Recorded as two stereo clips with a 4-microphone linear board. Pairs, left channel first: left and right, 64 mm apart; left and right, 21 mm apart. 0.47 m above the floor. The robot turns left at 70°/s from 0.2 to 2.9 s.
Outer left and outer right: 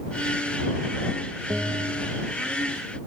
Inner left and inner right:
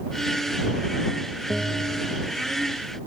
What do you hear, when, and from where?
1.5 s a bell: 155° right; by 2.3 s 150° left